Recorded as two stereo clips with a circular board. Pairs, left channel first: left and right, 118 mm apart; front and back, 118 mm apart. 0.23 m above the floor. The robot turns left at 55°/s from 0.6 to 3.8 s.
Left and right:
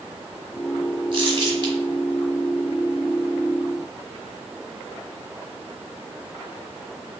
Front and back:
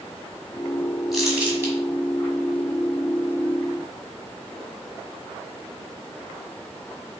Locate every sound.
1.1 s crumpling: 90° right, 1.4 m; by 1.7 s 125° right, 1.4 m